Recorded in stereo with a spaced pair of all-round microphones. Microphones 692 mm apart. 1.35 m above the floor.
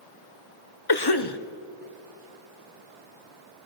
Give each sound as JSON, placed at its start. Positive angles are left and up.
{"t": 0.9, "sound": "a cough", "side_deg": 35, "distance_m": 0.9}